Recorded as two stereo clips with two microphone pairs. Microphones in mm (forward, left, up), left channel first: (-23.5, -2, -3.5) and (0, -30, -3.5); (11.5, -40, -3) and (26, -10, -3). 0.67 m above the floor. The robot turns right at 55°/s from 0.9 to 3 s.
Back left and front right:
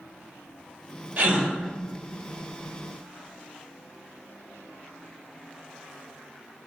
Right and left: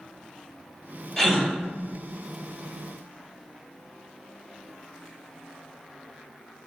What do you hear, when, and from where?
1.2 s a gasp: 35° right, 1.9 m; by 1.5 s 15° right, 1.9 m